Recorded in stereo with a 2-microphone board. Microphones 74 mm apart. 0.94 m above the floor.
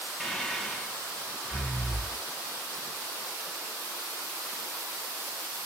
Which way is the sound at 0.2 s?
5° left (ahead or behind).